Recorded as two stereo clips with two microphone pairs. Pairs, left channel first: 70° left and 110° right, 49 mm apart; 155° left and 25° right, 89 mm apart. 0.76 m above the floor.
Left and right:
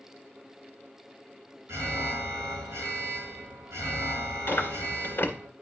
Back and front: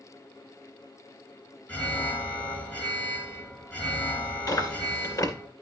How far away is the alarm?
About 4 m.